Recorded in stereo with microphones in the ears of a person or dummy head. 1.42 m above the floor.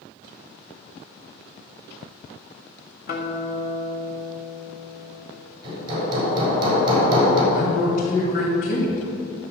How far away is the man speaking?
About 2.5 m.